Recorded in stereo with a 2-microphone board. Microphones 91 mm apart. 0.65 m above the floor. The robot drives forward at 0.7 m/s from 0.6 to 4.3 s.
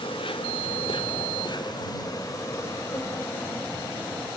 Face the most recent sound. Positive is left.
turn(degrees=20)  # may be behind; listen again after turning